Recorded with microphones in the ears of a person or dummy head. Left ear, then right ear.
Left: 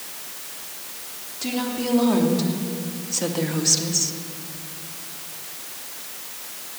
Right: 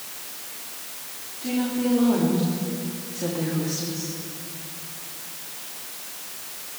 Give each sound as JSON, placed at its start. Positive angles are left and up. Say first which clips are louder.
{"t": 1.4, "sound": "a woman speaking", "louder": "even", "side_deg": 80, "distance_m": 3.0}